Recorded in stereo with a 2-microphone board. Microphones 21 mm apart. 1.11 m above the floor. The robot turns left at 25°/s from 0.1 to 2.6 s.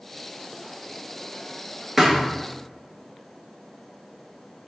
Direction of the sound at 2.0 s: 5° right (ahead or behind).